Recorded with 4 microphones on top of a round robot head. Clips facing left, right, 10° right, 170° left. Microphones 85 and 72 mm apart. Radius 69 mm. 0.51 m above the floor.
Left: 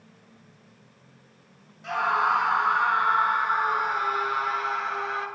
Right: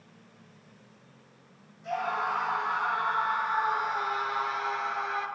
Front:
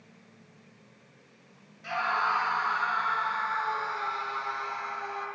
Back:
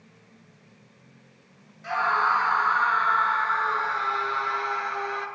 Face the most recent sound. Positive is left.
turn(degrees=140)